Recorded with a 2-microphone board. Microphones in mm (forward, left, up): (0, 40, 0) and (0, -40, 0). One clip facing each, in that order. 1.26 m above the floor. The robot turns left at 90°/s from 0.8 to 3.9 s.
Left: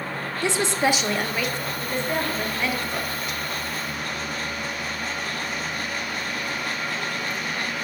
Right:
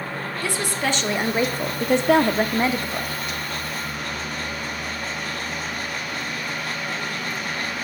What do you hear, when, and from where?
0.4 s a woman speaking: 20° left, 0.5 m; by 3.1 s 175° left, 0.5 m